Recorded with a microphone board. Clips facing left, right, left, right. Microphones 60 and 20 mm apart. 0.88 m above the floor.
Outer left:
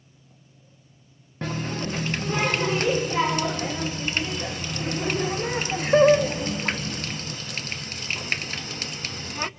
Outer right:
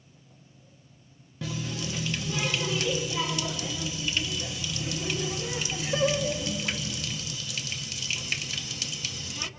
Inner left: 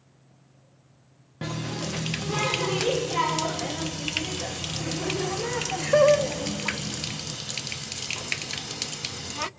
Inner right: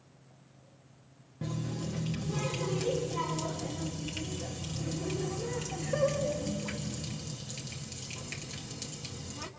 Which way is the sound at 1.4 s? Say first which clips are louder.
Outer left 5 dB, inner left 6 dB; 50° left (ahead or behind).